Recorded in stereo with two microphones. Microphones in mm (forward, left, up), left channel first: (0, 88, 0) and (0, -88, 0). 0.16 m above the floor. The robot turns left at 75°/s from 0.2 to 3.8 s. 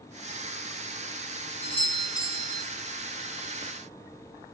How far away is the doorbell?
About 2.5 m.